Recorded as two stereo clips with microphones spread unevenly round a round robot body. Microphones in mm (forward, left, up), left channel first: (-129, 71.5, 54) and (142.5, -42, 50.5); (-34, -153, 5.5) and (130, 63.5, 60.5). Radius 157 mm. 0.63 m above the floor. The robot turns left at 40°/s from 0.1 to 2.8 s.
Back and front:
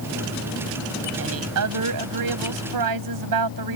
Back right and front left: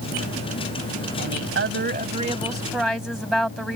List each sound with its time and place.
1.2 s a woman speaking: 25° left; by 3.8 s 40° right